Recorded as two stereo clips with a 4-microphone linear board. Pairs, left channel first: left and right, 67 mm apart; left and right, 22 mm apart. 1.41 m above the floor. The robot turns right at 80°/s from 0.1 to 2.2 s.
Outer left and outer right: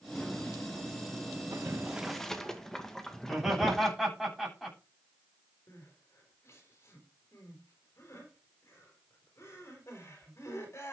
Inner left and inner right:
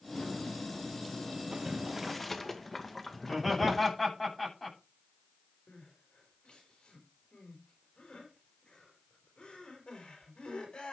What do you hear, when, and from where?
1.5 s boiling: 45° right (ahead or behind), 1.8 m; by 3.9 s 10° left (ahead or behind), 1.8 m
3.2 s laughter: centre (ahead or behind), 9.5 m
5.7 s crying: 45° left (ahead or behind), 4.5 m